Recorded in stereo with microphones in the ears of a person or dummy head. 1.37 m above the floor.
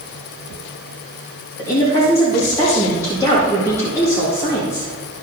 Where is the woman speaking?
15° left (ahead or behind), 1.8 m.